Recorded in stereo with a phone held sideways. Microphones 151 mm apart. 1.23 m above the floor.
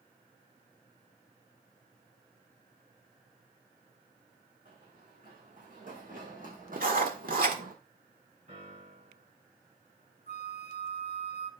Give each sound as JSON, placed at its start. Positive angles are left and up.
{"t": 4.7, "sound": "running footsteps", "side_deg": -50, "distance_m": 6.5}
{"t": 6.8, "sound": "writing", "side_deg": -60, "distance_m": 1.6}
{"t": 8.5, "sound": "a piano", "side_deg": -50, "distance_m": 7.0}
{"t": 10.3, "sound": "a flute", "side_deg": 50, "distance_m": 0.8}